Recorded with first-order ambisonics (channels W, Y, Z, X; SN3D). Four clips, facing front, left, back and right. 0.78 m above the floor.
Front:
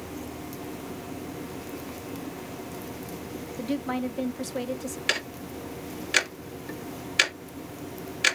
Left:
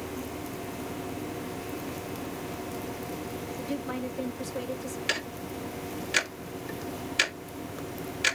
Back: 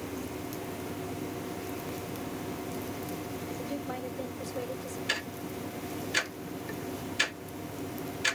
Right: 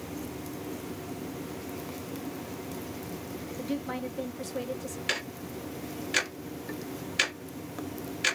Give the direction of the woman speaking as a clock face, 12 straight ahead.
12 o'clock.